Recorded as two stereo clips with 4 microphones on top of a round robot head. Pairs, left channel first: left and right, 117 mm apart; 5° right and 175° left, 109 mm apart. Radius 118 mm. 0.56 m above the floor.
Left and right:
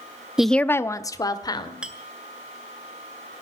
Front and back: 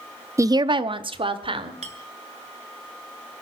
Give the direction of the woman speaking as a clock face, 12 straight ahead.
6 o'clock.